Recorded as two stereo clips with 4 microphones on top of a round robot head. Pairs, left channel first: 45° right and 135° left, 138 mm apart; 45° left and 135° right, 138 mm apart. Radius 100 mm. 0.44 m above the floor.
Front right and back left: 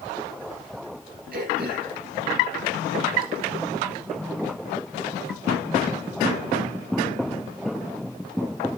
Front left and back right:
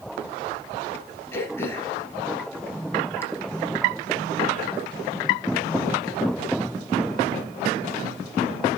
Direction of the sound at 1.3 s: 120° left.